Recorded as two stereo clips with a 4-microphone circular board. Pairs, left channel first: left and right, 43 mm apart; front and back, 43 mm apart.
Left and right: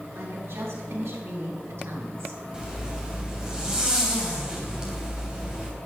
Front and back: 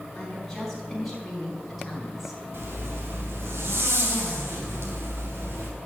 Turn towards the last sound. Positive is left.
turn(degrees=-160)